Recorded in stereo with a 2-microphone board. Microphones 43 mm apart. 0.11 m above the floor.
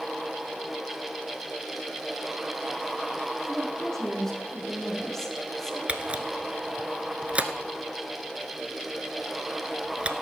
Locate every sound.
3.5 s a woman speaking: 10° left (ahead or behind), 4.5 m
5.9 s a camera shutter: 30° right (ahead or behind), 0.9 m